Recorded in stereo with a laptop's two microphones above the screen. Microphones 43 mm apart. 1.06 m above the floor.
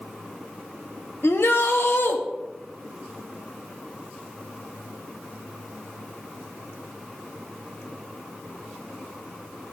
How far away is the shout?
About 1.5 m.